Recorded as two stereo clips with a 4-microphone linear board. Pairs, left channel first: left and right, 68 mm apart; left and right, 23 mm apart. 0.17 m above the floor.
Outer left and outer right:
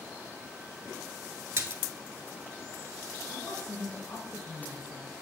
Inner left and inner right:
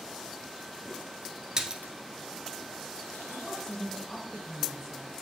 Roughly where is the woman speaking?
Centre.